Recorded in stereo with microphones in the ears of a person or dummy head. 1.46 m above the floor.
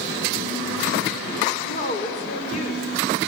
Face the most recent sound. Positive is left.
turn(degrees=45)  # may be behind; listen again after turning